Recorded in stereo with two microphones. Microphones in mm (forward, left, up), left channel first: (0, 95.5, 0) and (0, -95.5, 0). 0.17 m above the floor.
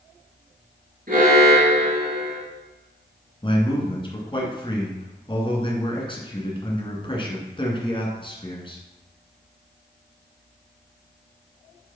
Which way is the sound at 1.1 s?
55° right (ahead or behind).